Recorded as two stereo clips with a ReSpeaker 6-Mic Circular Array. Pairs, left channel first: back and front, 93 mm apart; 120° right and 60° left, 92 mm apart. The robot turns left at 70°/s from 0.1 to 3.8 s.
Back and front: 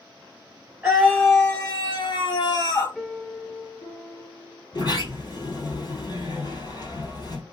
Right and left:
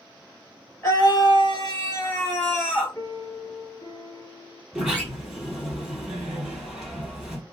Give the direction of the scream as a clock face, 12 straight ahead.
2 o'clock.